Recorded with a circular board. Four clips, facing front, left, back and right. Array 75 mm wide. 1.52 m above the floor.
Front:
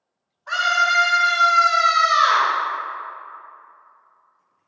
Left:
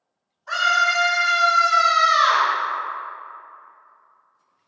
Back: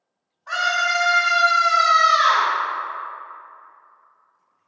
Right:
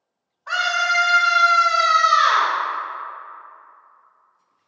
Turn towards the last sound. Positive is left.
turn(degrees=-160)